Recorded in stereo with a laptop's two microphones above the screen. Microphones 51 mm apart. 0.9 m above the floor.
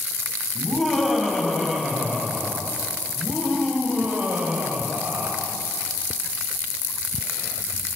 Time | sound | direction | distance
0.6 | laughter | 5° right (ahead or behind) | 6.5 m